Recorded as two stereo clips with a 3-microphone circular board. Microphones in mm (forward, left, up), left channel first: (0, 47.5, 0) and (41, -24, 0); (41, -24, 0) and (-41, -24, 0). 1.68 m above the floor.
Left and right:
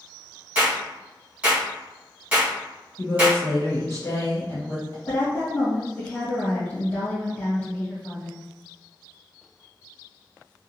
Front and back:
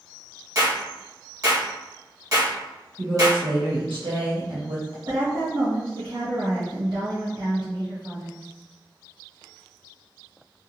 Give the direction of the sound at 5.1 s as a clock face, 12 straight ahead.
6 o'clock.